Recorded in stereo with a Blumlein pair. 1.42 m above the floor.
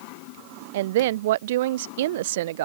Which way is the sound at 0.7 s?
55° right.